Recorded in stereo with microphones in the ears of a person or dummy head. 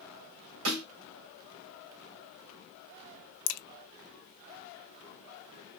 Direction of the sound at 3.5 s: 75° left (ahead or behind).